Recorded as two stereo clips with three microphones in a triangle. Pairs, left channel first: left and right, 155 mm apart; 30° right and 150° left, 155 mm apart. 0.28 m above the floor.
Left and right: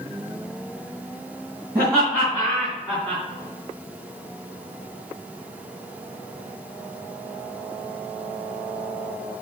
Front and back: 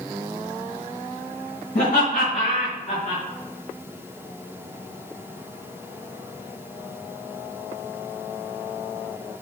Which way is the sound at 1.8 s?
20° right.